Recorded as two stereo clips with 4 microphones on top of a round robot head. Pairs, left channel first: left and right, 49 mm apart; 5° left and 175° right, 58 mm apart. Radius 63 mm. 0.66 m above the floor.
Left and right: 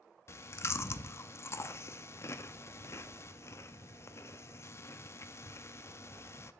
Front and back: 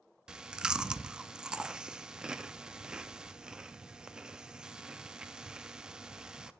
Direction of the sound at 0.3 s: 105° left.